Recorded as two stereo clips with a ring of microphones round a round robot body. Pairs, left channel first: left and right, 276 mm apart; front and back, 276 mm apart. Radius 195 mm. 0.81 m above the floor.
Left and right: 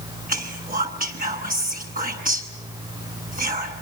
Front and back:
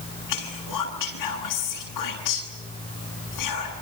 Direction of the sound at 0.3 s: 30° right.